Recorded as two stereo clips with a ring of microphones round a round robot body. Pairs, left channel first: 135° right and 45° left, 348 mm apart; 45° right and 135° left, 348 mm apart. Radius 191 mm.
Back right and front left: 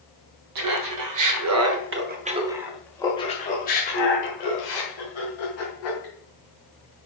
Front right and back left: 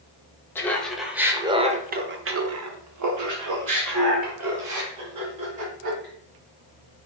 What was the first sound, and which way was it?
Laughter, 40° left.